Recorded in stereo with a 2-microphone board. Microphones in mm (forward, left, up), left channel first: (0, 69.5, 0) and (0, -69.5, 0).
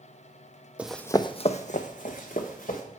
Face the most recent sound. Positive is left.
turn(degrees=85)